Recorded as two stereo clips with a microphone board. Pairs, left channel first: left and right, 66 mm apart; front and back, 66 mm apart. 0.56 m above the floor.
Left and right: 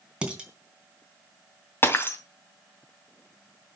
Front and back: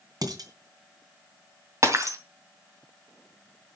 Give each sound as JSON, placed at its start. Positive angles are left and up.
{"t": 0.2, "sound": "dishes clattering", "azimuth_deg": -165, "distance_m": 3.0}
{"t": 1.8, "sound": "breaking glass", "azimuth_deg": 145, "distance_m": 2.0}